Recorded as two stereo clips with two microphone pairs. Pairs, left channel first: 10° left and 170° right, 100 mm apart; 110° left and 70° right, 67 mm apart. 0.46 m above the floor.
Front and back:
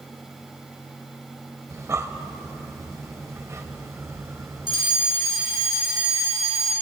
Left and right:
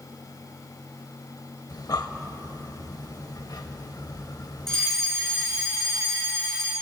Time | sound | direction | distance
1.7 | breathing | 130° left | 0.6 m
4.7 | a fire alarm | 30° left | 4 m